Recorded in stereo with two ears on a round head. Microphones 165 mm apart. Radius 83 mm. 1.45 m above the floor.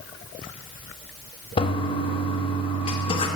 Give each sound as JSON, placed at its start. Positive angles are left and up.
{"t": 1.6, "sound": "a toilet flushing", "side_deg": 30, "distance_m": 1.1}